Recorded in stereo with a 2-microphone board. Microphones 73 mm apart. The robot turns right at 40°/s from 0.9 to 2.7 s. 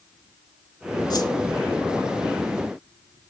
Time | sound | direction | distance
1.1 | a whoosh | 70° left (ahead or behind) | 0.9 m